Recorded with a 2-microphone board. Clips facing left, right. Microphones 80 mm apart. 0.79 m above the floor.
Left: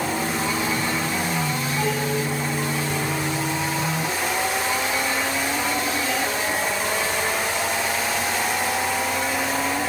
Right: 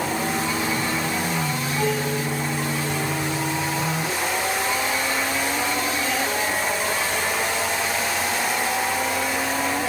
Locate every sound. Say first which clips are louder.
1.8 s dishes clattering: right 1 dB; 15° left (ahead or behind), 5 m